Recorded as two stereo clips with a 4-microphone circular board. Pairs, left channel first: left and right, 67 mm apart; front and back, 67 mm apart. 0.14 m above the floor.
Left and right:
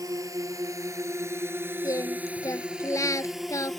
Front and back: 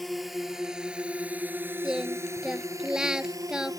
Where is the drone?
90° right; by 3.8 s straight behind.